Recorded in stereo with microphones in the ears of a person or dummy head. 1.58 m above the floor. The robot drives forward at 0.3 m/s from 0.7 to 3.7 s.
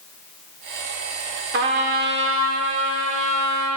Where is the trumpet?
60° right (ahead or behind), 1.4 m; by 3.8 s 80° right, 1.2 m.